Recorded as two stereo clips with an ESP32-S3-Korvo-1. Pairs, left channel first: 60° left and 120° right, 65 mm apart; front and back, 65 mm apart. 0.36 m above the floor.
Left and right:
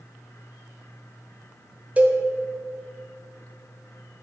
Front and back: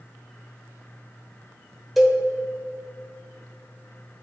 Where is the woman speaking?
I don't hear a woman speaking.